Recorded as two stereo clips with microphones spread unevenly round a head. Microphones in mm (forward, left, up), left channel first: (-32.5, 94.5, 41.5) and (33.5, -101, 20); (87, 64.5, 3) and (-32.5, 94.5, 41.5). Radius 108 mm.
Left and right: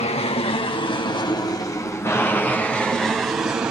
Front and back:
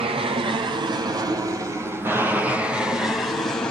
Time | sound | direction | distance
0.0 | an aircraft | 145° left | ?